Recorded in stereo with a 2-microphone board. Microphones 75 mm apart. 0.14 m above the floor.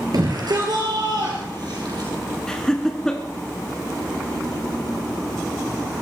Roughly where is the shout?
Right.